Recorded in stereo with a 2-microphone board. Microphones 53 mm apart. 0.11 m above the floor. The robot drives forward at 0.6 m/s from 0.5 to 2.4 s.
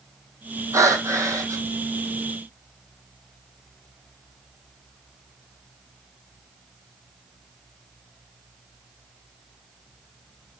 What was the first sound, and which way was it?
Breathing, 70° right (ahead or behind).